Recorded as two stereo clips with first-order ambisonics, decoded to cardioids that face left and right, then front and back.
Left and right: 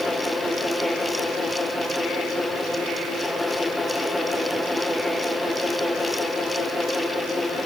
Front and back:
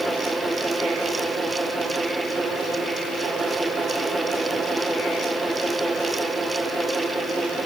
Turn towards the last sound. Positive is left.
No sound to turn to.